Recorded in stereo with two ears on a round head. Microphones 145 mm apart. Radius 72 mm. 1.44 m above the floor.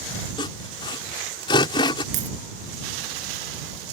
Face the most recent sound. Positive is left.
turn(degrees=-50)  # may be behind; listen again after turning